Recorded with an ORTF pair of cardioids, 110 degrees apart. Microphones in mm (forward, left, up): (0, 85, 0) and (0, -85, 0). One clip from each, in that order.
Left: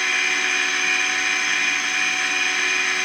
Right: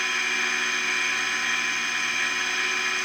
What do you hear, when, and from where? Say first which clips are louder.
0.0 s a machine running: left 4 dB; 40° left, 6 m